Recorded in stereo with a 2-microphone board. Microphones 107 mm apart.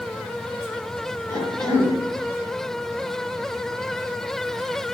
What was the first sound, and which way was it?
A cough, 25° left (ahead or behind).